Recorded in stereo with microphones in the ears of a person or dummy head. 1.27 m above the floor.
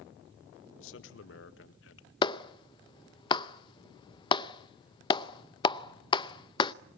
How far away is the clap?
About 0.6 m.